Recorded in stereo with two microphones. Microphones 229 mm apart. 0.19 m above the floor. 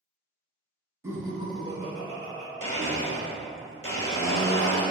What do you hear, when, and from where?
1.0 s laughter: 10° right (ahead or behind), 1.3 m; by 2.5 s 40° right (ahead or behind), 1.5 m
2.6 s a blender: 70° left (ahead or behind), 1.2 m